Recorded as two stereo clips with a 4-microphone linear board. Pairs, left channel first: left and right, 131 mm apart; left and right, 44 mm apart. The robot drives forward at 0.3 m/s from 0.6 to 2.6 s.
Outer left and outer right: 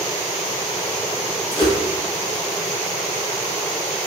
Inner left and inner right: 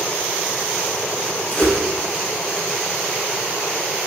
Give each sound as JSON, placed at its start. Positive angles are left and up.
{"t": 1.5, "sound": "a whoosh", "side_deg": 40, "distance_m": 0.7}